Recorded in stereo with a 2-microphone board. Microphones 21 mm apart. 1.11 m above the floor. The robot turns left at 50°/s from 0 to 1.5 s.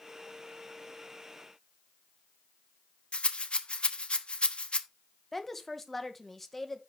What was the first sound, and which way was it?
A rattle, 60° left (ahead or behind).